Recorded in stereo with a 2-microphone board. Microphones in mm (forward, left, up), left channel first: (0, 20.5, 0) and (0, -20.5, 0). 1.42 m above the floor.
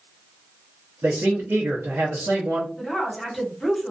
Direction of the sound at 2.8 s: Centre (ahead or behind).